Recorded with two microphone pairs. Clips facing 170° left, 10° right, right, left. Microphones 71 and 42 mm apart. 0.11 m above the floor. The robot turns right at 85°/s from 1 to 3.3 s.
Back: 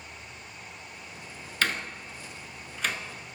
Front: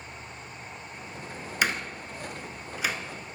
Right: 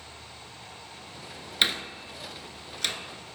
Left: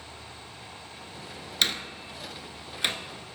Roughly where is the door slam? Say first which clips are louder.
Front 1 dB, right 2 dB; ahead right.